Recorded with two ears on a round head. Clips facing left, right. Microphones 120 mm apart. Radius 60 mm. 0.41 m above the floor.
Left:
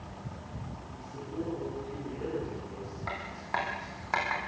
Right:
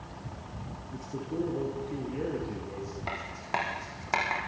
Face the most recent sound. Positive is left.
turn(degrees=-25)  # may be behind; listen again after turning